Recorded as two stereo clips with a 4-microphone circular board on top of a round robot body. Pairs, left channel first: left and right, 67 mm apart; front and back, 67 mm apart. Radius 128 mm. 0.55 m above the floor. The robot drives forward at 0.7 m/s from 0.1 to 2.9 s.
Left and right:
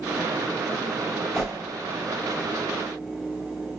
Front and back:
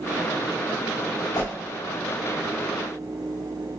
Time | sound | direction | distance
1.3 | a whoosh | straight ahead | 3.5 m